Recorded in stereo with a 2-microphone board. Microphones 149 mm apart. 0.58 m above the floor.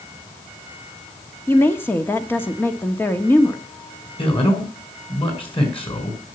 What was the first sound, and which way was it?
A woman speaking, 15° left (ahead or behind).